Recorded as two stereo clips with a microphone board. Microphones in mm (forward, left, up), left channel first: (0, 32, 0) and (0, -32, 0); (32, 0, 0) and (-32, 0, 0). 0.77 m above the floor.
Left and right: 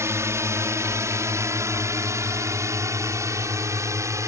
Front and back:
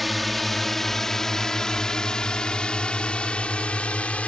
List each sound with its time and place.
0.0 s a drone: 85° right; by 4.3 s 65° right